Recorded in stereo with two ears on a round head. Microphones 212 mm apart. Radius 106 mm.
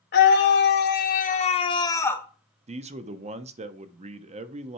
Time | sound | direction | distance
0.1 | a scream | 45° left (ahead or behind) | 1.3 m
2.7 | a man speaking | 30° right (ahead or behind) | 0.6 m